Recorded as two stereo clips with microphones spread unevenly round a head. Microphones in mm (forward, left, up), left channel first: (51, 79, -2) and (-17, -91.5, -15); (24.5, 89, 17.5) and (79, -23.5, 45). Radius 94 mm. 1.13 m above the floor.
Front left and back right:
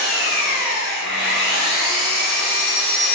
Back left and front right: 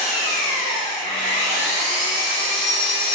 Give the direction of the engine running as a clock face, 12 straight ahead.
9 o'clock.